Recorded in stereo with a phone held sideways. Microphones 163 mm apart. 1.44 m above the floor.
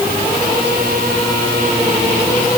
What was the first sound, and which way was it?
Only background noise.